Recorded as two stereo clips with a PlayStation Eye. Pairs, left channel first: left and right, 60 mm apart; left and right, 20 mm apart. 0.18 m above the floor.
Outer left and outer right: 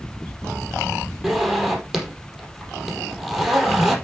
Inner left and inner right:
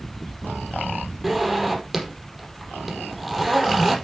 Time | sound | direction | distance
1.2 | a zipper | 5° right (ahead or behind) | 4.5 m